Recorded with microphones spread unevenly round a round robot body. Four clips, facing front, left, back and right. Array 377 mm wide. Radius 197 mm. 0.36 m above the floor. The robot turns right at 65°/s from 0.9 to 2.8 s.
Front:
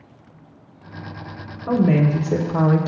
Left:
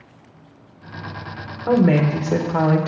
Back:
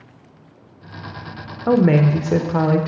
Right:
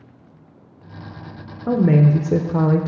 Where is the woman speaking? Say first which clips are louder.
Even, back 3 dB; 155° right, 0.9 m; by 2.9 s 80° right, 0.9 m.